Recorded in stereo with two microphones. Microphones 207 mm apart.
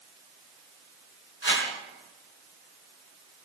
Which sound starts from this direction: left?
A whoosh, at 1.4 s.